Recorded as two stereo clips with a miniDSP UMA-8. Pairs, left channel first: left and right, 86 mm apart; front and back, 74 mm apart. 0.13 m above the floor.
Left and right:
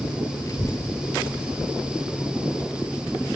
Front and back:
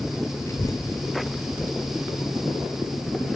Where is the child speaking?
45° left, 1.5 m; by 3.3 s 5° left, 3.5 m.